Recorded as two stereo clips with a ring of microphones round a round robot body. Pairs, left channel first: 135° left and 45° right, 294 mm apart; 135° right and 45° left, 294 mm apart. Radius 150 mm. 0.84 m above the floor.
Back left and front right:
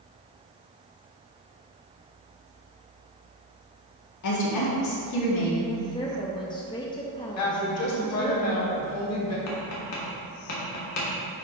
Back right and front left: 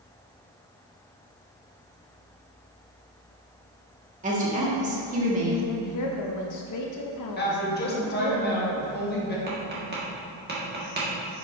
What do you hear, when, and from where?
4.2 s a woman speaking: 110° left, 2.0 m
5.7 s a woman speaking: 150° right, 0.7 m
7.4 s a woman speaking: 170° left, 1.6 m
9.5 s tapping: 100° left, 1.9 m